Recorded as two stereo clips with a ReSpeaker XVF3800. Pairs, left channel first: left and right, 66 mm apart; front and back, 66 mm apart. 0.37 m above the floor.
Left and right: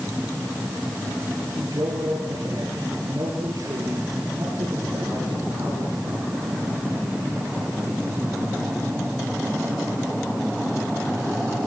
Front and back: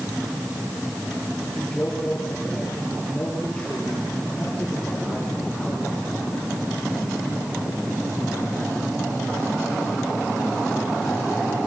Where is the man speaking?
75° right, 6.5 m.